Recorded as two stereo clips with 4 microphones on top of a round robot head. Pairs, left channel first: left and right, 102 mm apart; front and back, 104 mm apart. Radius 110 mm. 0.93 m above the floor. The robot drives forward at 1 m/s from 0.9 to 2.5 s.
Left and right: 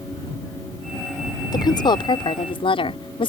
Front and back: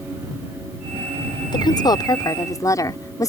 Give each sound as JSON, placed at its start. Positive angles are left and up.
{"t": 1.5, "sound": "a woman speaking", "azimuth_deg": 45}